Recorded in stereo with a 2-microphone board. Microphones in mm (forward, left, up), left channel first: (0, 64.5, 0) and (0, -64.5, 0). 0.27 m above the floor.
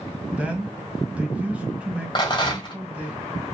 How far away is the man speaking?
About 1.4 m.